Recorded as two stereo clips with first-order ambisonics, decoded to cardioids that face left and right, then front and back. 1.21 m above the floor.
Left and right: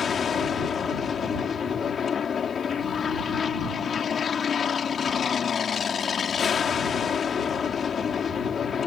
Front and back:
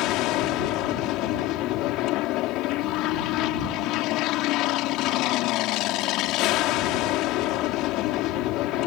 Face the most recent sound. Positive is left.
turn(degrees=25)